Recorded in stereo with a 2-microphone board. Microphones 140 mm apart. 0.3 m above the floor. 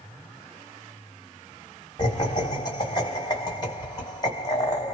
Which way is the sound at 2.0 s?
30° left (ahead or behind).